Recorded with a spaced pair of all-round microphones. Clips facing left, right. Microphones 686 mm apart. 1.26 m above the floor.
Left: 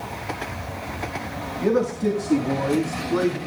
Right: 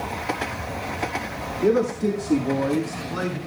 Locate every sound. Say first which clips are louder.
1.6 s a man speaking: right 1 dB; 30° left (ahead or behind), 2 m; by 3.4 s 30° right (ahead or behind), 3 m